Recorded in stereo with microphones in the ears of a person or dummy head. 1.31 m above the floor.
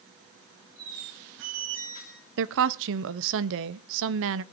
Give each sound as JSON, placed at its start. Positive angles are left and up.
{"t": 0.8, "sound": "a squeak", "side_deg": -75, "distance_m": 4.0}
{"t": 2.4, "sound": "a woman speaking", "side_deg": -65, "distance_m": 0.7}